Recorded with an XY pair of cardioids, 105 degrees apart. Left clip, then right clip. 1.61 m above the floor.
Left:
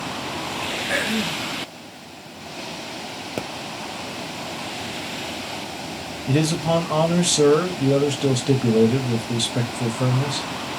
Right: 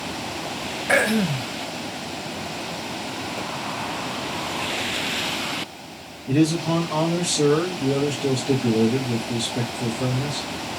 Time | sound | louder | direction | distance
0.9 | throat clearing | right 6 dB | 65° right | 0.7 m
3.4 | a pop | left 5 dB | 65° left | 0.5 m
6.3 | a man speaking | even | 60° left | 1.2 m